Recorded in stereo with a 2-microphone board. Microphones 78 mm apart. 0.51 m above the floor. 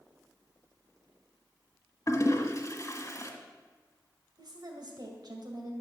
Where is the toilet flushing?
45° left (ahead or behind), 1.7 m.